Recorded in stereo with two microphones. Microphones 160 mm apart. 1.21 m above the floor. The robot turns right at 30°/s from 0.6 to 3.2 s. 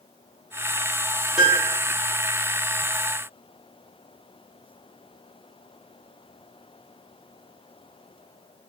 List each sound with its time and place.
1.4 s a piano: 5° right (ahead or behind), 0.6 m; by 1.8 s 5° left (ahead or behind), 0.6 m